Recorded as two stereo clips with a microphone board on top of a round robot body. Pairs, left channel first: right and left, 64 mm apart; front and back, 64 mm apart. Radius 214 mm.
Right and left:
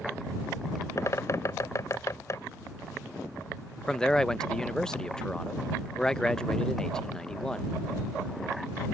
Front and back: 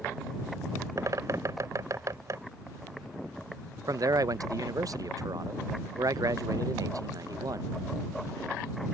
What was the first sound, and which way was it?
A bird, 135° right.